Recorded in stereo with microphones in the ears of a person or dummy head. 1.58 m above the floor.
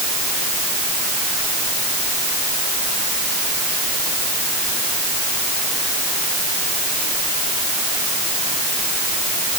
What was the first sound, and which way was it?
Only background noise.